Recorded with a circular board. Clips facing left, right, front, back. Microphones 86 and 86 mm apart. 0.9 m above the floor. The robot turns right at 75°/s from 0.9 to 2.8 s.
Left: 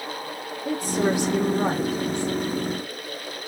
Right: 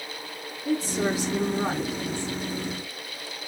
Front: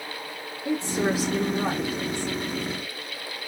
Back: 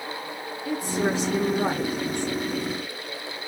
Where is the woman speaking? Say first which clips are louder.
Left 2 dB, front 1 dB; 65° left, 1.2 m; by 2.4 s 175° left, 1.2 m.